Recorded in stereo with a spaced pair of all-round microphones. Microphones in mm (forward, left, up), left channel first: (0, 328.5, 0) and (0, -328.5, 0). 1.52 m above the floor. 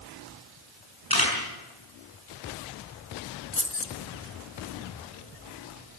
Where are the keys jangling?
20° left (ahead or behind), 1.0 m.